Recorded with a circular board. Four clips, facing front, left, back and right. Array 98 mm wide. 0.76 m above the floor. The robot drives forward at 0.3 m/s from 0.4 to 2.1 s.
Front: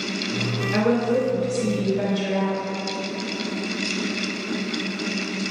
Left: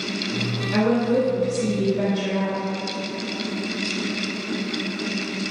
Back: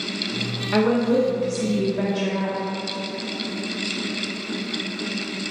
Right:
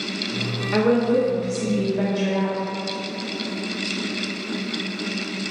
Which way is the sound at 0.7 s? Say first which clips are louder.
Right 1 dB, back 2 dB; 155° right.